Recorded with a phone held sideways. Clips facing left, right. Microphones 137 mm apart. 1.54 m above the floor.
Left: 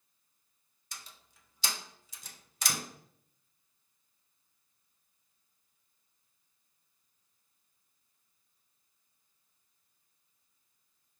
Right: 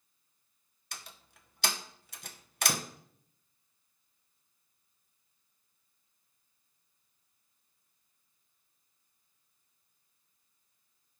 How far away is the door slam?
About 0.9 m.